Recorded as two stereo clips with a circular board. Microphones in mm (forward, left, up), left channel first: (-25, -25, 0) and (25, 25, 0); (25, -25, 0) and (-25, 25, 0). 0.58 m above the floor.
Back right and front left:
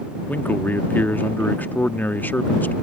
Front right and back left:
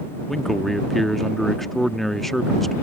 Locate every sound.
0.3 s a man speaking: 130° right